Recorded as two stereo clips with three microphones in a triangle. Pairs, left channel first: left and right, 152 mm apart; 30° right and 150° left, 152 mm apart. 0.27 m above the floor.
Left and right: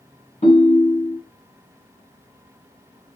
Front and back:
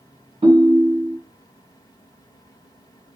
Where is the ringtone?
105° left, 1.5 m.